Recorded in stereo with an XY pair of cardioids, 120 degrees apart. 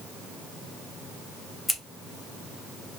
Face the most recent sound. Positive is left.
turn(degrees=20)